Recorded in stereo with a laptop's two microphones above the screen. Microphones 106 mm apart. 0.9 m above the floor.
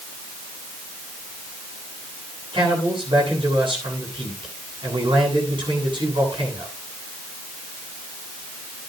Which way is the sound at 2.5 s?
50° right (ahead or behind).